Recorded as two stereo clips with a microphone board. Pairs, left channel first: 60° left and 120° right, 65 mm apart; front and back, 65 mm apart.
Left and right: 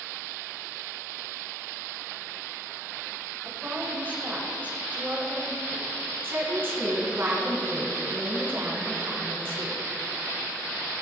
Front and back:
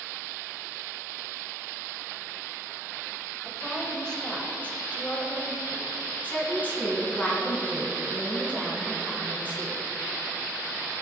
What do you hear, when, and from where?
3.5 s a woman speaking: 90° right, 1.7 m; by 5.9 s 45° right, 2.5 m
6.2 s a woman speaking: 65° right, 3 m